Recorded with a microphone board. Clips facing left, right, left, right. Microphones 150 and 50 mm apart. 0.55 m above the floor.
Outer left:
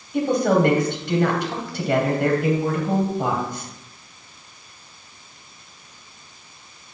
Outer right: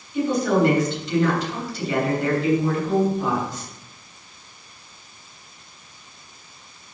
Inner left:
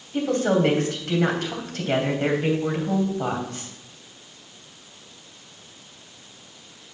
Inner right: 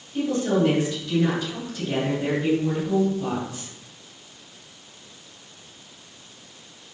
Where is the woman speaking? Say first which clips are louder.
Outer left 1 dB, inner left 1 dB; 60° left (ahead or behind), 3 m.